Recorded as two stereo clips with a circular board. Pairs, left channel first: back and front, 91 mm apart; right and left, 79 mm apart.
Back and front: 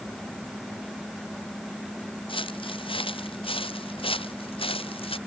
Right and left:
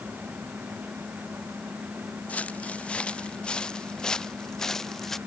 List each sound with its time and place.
2.3 s footsteps: 160° right; by 5.2 s 175° right